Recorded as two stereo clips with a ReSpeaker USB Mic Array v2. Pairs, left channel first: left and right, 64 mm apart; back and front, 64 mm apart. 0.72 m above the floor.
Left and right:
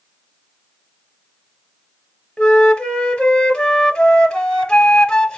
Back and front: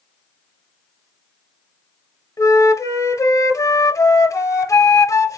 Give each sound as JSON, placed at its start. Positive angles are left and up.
{"t": 2.4, "sound": "a flute", "azimuth_deg": 165, "distance_m": 1.0}